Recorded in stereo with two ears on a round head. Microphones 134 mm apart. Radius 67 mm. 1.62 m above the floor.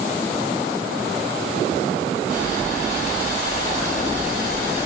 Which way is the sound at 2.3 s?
50° left (ahead or behind).